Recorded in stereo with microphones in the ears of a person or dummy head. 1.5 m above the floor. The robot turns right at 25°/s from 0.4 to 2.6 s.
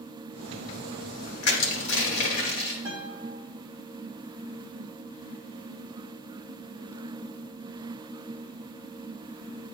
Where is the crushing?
80° left, 1.6 m; by 2.8 s 55° left (ahead or behind), 1.6 m.